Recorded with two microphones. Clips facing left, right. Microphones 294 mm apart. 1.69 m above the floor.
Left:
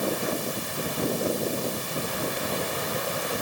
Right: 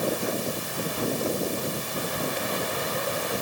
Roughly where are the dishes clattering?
No dishes clattering in this recording.